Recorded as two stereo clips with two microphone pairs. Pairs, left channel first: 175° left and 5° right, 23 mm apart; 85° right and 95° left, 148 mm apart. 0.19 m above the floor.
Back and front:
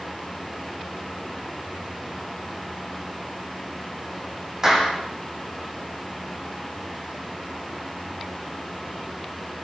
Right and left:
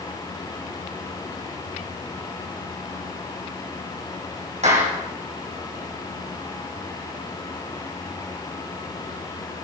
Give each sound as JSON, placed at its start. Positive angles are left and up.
{"t": 4.6, "sound": "a clap", "azimuth_deg": 60, "distance_m": 8.0}